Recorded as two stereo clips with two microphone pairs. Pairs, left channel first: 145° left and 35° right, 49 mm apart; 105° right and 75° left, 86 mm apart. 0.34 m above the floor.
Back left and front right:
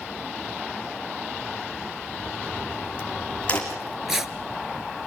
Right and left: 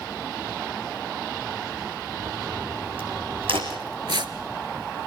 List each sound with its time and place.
2.2 s a crack: 80° left, 5 m
3.7 s tearing paper: 50° left, 0.9 m